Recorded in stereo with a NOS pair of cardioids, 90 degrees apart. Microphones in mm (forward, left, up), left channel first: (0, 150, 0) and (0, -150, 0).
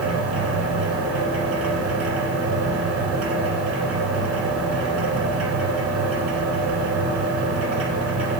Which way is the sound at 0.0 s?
60° right.